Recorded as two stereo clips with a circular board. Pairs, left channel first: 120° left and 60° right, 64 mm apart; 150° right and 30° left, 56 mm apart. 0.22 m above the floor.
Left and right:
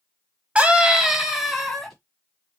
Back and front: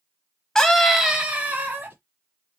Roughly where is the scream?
Right.